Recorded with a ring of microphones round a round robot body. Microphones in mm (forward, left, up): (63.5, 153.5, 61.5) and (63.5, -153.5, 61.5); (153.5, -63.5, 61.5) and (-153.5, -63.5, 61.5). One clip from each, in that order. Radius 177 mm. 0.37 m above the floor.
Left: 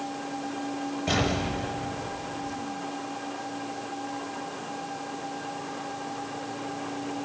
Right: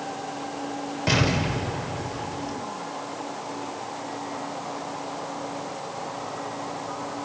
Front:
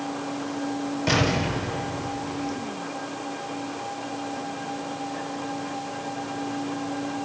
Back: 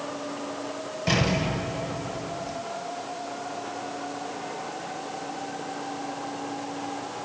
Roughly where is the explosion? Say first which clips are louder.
Right 4 dB, front 2 dB; right.